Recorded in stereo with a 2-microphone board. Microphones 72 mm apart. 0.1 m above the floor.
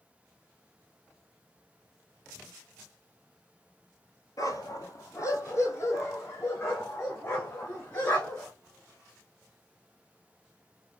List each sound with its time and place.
4.4 s a dog barking: 55° left (ahead or behind), 0.7 m; by 8.5 s 30° left (ahead or behind), 3.5 m